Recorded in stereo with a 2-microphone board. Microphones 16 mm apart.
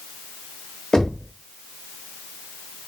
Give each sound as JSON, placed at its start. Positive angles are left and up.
{"t": 0.9, "sound": "knocking", "side_deg": 35, "distance_m": 0.9}